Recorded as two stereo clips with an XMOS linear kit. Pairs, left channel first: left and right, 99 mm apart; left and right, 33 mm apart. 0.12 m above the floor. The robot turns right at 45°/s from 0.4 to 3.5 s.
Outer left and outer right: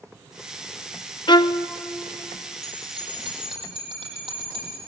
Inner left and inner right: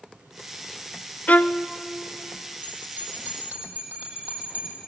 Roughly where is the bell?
Behind right.